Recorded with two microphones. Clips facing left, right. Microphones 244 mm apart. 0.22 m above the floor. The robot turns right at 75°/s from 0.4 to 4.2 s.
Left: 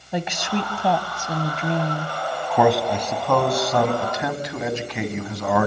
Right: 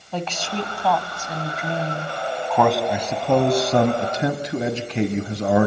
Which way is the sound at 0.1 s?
30° left.